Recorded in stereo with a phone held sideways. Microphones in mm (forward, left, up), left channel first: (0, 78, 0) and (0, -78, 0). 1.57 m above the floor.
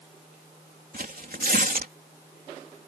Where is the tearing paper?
70° right (ahead or behind).